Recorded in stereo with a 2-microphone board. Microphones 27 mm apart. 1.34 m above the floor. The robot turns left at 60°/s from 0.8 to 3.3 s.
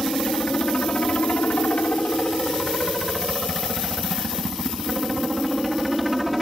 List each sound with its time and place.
0.0 s a helicopter: 145° left; by 6.4 s 5° right